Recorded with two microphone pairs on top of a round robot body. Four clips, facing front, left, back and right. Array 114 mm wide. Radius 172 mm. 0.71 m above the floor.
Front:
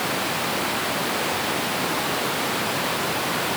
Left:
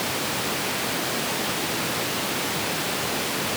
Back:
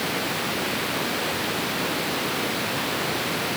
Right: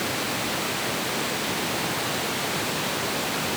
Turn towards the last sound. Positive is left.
No sound to turn to.